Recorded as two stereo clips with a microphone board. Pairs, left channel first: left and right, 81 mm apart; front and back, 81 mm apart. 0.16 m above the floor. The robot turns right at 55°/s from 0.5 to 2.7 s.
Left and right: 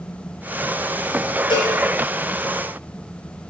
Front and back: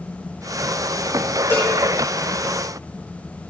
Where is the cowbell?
65° left, 4.5 m; by 1.7 s 80° left, 4.5 m.